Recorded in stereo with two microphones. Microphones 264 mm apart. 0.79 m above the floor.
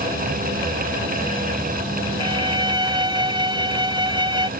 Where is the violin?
20° right (ahead or behind).